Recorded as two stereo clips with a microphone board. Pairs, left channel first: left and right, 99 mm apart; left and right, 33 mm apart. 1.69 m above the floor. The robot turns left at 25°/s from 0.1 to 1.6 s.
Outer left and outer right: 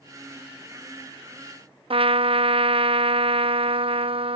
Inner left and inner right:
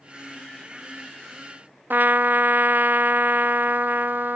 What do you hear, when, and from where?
1.9 s a trumpet: 65° right (ahead or behind)